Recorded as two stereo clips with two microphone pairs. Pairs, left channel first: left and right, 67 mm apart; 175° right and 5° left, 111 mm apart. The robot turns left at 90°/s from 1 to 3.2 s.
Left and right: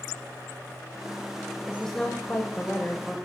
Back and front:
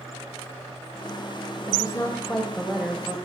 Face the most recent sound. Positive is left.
turn(degrees=40)